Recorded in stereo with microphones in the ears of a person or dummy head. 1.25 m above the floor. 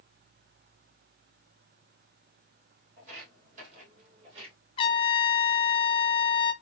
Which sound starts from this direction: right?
Footsteps, at 3.0 s.